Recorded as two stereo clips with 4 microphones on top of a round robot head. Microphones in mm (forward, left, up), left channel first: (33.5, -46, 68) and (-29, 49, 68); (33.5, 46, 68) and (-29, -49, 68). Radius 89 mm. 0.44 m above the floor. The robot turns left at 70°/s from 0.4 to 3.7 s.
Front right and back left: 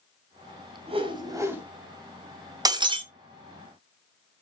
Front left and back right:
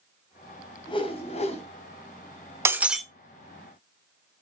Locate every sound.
0.9 s a whoosh: 100° left, 1.8 m; by 1.6 s 45° left, 1.8 m
2.6 s breaking glass: 175° left, 0.9 m; by 3.0 s 145° left, 0.9 m